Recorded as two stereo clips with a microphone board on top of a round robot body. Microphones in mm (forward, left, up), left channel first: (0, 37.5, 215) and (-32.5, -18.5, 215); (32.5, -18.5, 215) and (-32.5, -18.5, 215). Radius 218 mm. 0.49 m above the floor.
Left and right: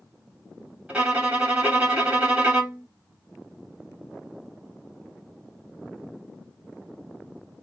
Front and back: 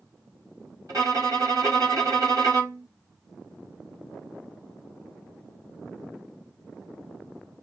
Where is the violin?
165° left, 3.5 m.